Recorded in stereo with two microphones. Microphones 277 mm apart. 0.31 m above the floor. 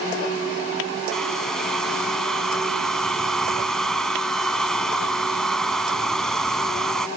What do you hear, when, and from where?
1.1 s a hair dryer: centre (ahead or behind)